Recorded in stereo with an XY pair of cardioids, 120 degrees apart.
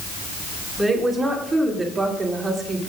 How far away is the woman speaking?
About 3 m.